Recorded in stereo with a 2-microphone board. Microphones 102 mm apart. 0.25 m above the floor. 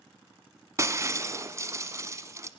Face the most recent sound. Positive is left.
turn(degrees=-30)  # may be behind; listen again after turning